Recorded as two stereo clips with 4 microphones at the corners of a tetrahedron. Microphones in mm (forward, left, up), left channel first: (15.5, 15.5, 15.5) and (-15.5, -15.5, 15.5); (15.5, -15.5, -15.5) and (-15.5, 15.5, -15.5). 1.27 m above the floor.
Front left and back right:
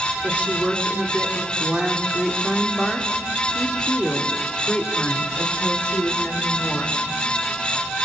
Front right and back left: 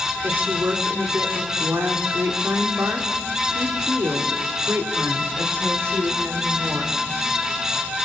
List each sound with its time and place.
0.2 s a woman speaking: 170° left, 3 m; by 7.0 s 100° left, 4 m